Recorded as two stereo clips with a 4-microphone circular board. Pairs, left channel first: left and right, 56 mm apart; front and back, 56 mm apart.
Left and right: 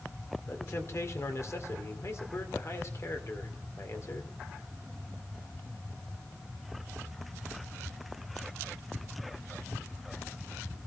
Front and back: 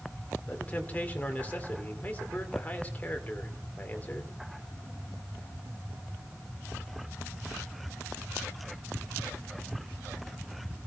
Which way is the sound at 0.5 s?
60° left.